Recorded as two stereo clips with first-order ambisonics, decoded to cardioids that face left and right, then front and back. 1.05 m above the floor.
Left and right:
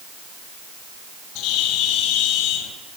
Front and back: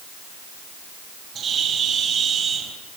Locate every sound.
1.4 s a bird: 115° left, 4.5 m